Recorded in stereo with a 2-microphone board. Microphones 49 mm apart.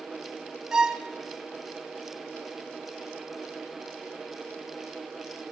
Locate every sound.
0.7 s a violin: 15° right (ahead or behind), 1.0 m